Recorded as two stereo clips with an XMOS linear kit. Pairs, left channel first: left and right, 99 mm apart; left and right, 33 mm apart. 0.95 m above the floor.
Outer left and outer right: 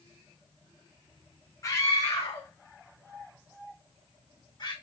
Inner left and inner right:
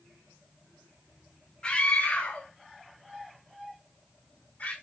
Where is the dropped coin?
I don't hear a dropped coin.